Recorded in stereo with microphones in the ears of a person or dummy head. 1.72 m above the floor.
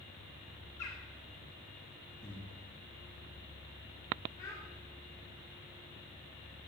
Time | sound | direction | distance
0.8 | a bird | 35° left (ahead or behind) | 2.5 m
2.2 | breathing | centre (ahead or behind) | 4 m
4.4 | a child speaking | 15° left (ahead or behind) | 3.5 m